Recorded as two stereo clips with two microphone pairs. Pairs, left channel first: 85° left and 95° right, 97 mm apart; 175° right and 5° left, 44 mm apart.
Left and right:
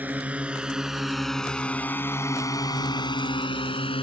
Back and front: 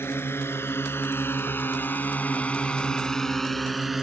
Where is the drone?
170° right; by 4.0 s 90° left.